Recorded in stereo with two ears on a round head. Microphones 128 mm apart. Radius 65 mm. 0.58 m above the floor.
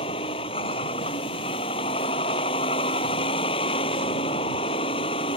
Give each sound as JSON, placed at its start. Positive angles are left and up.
{"t": 0.0, "sound": "a vehicle", "side_deg": 35}